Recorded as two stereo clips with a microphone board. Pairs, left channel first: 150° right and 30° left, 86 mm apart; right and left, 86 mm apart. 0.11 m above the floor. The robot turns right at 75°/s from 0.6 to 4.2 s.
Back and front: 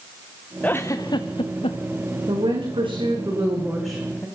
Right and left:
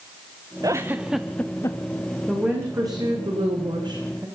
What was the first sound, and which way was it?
A giggle, 135° left.